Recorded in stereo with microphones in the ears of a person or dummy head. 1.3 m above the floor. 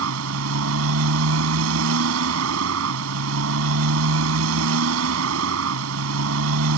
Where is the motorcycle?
80° right.